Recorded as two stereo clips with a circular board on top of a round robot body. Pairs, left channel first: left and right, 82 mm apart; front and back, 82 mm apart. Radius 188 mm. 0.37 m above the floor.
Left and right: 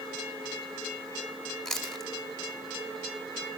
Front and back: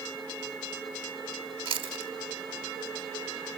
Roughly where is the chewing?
Behind.